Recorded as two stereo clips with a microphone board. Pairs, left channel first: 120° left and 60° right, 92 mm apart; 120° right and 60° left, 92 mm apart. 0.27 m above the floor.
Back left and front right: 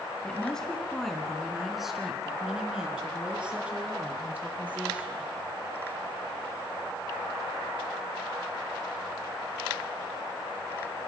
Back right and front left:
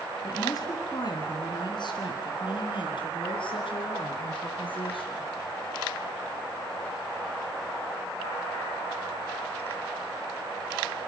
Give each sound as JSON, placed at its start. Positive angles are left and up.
{"t": 0.2, "sound": "a woman speaking", "azimuth_deg": -160, "distance_m": 3.0}